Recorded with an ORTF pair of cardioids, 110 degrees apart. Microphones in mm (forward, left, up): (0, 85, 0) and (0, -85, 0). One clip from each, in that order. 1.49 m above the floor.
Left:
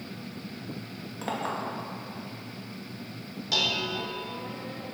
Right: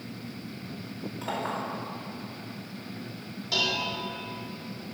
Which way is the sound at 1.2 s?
30° left.